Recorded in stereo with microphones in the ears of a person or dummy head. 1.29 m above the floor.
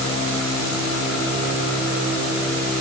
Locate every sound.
Only background noise.